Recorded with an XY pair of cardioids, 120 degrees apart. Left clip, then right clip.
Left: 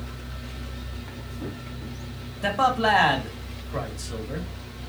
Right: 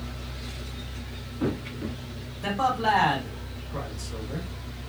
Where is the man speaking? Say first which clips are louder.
Left 3 dB; 45° left, 1.5 m.